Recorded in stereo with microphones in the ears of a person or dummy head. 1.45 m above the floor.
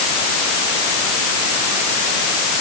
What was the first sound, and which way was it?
Only background noise.